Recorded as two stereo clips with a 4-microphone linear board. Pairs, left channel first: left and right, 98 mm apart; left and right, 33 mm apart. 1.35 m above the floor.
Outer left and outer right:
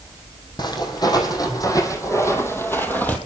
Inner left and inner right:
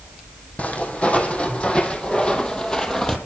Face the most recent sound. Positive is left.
turn(degrees=15)  # may be behind; listen again after turning